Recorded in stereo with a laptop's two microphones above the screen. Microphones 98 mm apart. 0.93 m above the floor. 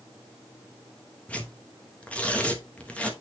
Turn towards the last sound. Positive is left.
turn(degrees=15)  # may be behind; listen again after turning